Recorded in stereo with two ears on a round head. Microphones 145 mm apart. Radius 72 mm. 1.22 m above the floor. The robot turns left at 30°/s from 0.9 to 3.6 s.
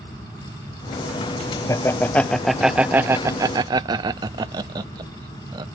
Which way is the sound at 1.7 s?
20° left (ahead or behind).